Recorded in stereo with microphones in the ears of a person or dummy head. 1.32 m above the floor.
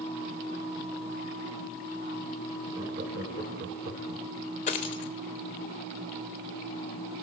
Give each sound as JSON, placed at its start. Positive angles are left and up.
{"t": 2.8, "sound": "laughter", "side_deg": -60, "distance_m": 1.4}
{"t": 4.7, "sound": "a dropped coin", "side_deg": 45, "distance_m": 0.8}